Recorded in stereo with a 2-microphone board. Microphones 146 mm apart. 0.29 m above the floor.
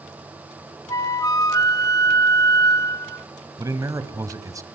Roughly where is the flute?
Left.